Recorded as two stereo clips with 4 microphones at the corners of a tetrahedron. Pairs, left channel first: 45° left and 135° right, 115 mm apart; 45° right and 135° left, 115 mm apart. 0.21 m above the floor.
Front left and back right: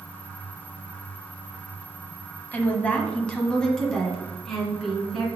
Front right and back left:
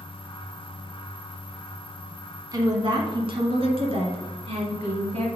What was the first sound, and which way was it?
A woman speaking, 110° left.